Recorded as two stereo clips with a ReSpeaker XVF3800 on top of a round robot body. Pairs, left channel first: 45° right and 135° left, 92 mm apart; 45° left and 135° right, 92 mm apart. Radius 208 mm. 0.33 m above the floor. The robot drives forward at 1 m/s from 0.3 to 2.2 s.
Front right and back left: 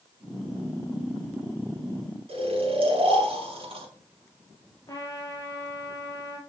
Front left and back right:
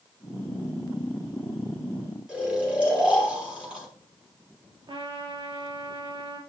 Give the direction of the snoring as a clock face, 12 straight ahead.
7 o'clock.